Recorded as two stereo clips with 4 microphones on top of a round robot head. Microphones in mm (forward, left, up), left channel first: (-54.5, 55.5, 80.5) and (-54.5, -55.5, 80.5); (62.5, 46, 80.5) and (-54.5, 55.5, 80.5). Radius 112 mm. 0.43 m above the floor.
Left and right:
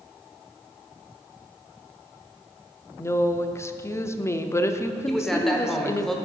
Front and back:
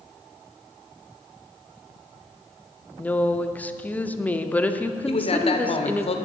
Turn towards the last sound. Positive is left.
turn(degrees=0)